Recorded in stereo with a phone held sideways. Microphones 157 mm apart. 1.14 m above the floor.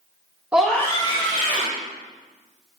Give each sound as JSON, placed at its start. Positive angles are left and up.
{"t": 0.5, "sound": "a scream", "side_deg": -10, "distance_m": 0.7}